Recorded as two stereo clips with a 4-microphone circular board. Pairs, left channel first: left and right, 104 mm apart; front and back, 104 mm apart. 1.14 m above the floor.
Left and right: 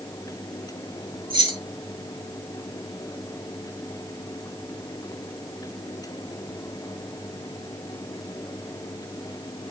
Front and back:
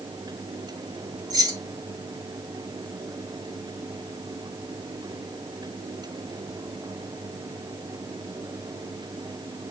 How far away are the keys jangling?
About 3 m.